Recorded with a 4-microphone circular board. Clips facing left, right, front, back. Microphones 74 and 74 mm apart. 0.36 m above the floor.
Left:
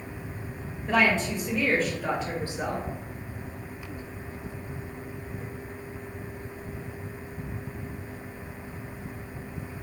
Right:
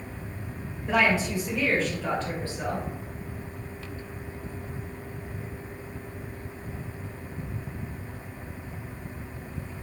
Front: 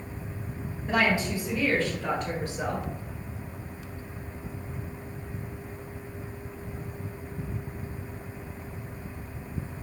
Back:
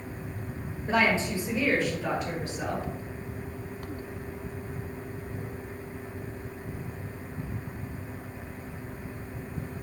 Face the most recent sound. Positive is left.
turn(degrees=60)